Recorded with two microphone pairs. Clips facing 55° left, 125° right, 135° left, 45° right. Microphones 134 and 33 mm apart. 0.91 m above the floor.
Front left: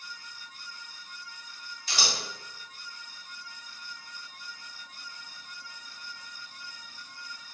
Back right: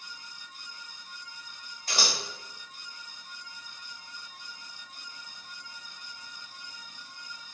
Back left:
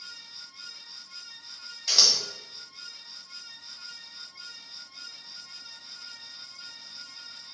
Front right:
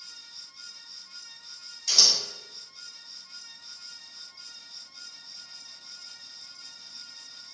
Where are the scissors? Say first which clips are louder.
Back right 1 dB, even; 160° right, 0.7 m.